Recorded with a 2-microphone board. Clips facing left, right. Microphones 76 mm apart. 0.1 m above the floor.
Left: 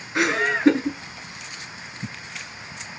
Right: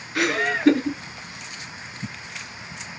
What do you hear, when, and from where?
0.1 s laughter: 25° left (ahead or behind), 1.1 m